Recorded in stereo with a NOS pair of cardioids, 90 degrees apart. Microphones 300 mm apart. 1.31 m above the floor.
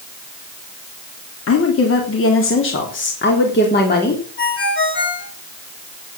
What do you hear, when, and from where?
1.5 s a woman speaking: 50° left, 3.5 m; by 4.2 s 30° left, 4 m
4.4 s a ringtone: 40° left, 10 m